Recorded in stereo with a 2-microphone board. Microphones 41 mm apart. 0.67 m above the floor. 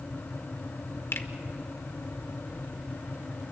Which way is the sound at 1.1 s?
70° left (ahead or behind).